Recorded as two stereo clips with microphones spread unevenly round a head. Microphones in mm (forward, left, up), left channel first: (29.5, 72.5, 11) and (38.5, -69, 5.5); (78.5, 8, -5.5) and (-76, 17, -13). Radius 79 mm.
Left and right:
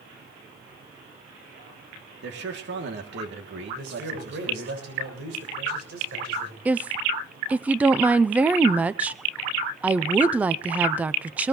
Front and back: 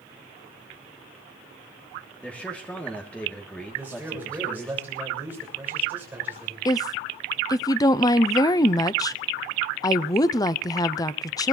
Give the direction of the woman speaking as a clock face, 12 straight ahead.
12 o'clock.